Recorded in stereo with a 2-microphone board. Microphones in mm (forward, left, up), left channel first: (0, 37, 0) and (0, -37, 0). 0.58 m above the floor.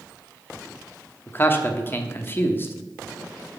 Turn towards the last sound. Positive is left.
turn(degrees=30)  # may be behind; listen again after turning